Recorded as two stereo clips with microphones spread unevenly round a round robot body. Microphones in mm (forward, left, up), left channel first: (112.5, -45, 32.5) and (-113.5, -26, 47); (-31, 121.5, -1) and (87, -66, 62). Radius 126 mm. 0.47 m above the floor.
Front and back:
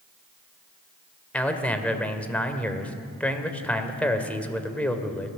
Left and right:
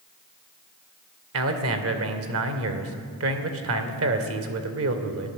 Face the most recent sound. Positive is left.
turn(degrees=-85)